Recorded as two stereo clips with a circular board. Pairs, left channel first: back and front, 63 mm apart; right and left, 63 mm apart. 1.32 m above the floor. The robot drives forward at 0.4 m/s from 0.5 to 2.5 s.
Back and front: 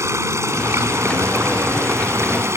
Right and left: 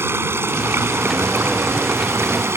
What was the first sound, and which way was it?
Running water, 40° left.